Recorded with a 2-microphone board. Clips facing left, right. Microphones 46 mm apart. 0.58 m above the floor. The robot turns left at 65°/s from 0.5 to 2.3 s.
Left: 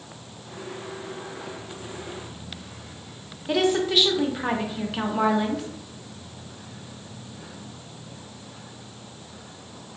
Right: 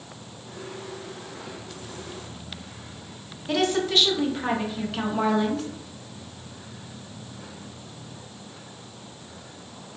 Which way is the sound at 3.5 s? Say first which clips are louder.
Left 2 dB; 5° left (ahead or behind).